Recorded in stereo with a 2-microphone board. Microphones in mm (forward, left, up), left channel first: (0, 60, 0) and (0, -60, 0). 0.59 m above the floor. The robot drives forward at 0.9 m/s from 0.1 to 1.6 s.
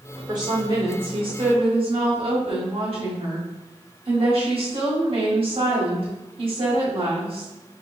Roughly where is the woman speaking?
Right.